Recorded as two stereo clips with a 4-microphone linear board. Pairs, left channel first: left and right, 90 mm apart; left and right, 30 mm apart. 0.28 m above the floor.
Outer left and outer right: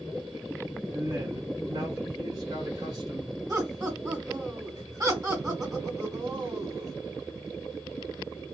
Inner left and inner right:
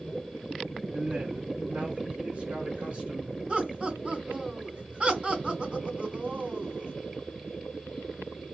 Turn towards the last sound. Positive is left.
turn(degrees=-45)  # may be behind; listen again after turning